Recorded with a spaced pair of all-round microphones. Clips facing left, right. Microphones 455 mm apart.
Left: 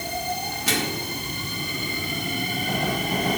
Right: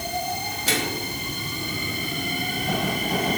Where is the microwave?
25° left (ahead or behind), 2 m.